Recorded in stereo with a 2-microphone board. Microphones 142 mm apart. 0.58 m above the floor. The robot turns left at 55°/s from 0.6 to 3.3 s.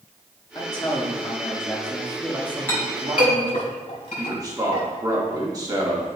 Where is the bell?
I don't hear a bell.